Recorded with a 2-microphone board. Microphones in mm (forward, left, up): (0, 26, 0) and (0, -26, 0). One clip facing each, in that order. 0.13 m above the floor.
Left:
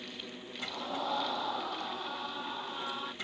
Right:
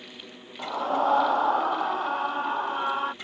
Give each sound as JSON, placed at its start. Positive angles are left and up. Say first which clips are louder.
{"t": 0.6, "sound": "a scream", "louder": "right 12 dB", "side_deg": -45}